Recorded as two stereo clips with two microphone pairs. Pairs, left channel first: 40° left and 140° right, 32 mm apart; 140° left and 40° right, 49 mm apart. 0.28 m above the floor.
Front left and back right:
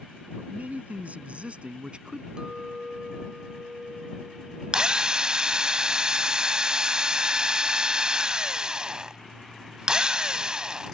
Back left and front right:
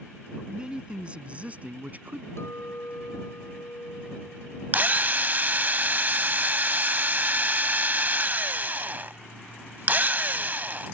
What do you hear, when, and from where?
0.3 s a man speaking: 110° right; by 2.3 s 80° right
2.4 s a clink: 160° left
4.7 s a drill: 75° right